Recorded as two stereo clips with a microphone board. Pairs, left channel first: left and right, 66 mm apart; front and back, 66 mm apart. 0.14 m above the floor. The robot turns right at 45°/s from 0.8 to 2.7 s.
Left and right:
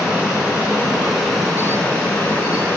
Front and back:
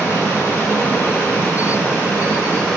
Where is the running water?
20° right, 1.2 m; by 2.8 s 65° left, 1.2 m.